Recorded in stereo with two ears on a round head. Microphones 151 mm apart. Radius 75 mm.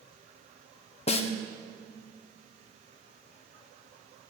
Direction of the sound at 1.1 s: 40° left (ahead or behind).